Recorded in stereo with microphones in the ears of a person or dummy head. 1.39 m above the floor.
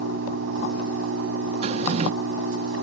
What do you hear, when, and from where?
0.0 s an engine running: 85° right
1.6 s a drawer: 35° right (ahead or behind)